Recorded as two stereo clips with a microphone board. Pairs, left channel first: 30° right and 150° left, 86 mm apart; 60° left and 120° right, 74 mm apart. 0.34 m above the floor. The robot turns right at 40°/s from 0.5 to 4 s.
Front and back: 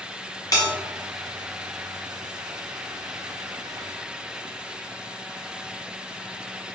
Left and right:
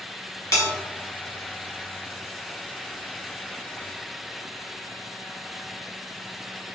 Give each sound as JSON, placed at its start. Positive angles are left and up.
{"t": 0.5, "sound": "a bell", "azimuth_deg": 15, "distance_m": 1.2}